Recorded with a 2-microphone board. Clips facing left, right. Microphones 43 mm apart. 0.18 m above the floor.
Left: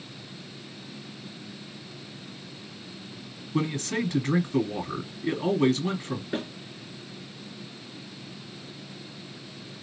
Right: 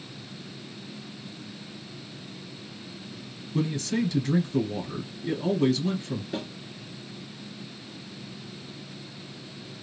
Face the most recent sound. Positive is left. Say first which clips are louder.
# left 4 dB
turn(degrees=40)  # may be behind; listen again after turning